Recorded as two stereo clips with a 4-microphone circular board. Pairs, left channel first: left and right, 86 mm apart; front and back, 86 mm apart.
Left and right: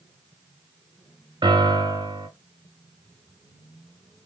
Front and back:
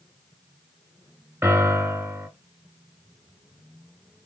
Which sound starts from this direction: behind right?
A piano, at 1.4 s.